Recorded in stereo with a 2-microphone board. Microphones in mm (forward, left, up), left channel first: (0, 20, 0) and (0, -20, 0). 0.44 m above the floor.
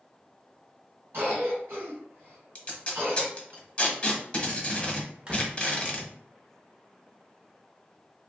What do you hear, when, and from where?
1.1 s a cough: 60° right (ahead or behind), 1.7 m
2.5 s tape being pulled: 30° left (ahead or behind), 0.8 m
5.3 s a door slam: 25° right (ahead or behind), 0.7 m